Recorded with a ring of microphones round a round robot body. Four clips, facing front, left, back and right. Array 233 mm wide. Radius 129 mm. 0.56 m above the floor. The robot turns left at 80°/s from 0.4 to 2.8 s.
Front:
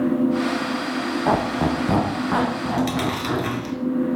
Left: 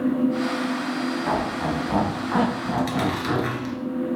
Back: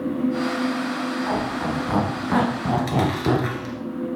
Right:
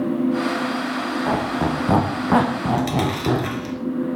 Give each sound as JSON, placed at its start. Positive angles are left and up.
{"t": 1.3, "sound": "a squeak", "azimuth_deg": -15, "distance_m": 3.5}
{"t": 2.7, "sound": "chewing", "azimuth_deg": -35, "distance_m": 2.0}